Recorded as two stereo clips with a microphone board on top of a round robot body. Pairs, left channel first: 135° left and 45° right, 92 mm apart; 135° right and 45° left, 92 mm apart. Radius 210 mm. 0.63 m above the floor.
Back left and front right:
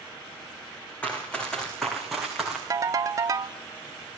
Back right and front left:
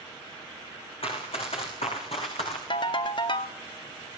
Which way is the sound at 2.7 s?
100° right.